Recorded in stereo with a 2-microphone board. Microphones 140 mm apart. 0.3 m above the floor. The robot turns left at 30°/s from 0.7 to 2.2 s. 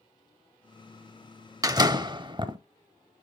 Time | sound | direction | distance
1.6 | a door slam | 25° right (ahead or behind) | 0.7 m